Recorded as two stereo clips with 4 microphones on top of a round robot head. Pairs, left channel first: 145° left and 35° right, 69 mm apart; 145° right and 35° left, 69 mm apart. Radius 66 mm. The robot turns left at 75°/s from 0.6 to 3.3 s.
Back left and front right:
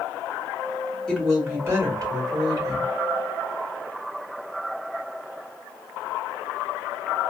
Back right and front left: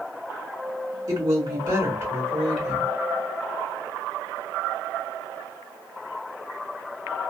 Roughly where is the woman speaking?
Ahead left.